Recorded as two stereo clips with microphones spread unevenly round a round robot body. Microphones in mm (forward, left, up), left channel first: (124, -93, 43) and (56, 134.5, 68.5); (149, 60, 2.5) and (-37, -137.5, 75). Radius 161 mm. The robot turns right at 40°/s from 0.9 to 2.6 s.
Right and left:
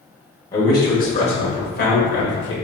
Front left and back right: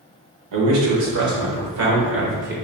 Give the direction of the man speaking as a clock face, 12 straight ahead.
5 o'clock.